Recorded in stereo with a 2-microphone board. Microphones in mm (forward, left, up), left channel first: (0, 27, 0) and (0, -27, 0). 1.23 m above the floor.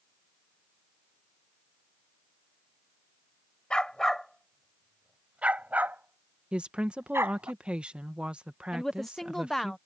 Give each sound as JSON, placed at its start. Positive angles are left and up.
{"t": 3.7, "sound": "a dog barking", "side_deg": 20}
{"t": 6.5, "sound": "a woman speaking", "side_deg": -20}
{"t": 8.7, "sound": "a woman speaking", "side_deg": 5}